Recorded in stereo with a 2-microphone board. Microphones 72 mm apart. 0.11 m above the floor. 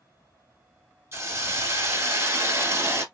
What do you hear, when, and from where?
1.1 s a hiss: 35° right (ahead or behind), 0.9 m